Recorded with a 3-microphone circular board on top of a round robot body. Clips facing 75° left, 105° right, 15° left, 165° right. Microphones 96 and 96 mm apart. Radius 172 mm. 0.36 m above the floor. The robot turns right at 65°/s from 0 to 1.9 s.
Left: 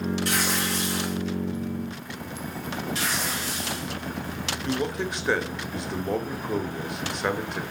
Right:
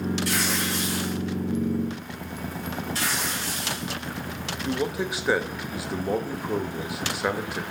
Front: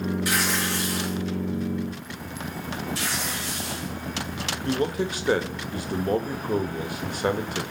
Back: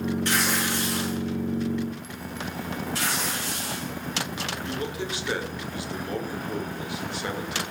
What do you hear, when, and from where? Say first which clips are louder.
0.2 s tearing paper: even, even; 95° left, 8 m; by 1.2 s 155° left, 8 m
3.0 s tearing paper: even, back 1 dB; 155° right, 8.5 m
4.7 s a man speaking: right 1 dB, front 9 dB; 20° right, 1.8 m